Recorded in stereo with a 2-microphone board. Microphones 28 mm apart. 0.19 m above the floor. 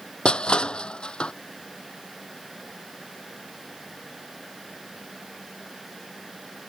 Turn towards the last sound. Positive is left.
turn(degrees=40)  # may be behind; listen again after turning